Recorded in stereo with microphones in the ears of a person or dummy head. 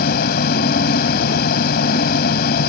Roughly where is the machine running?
Left.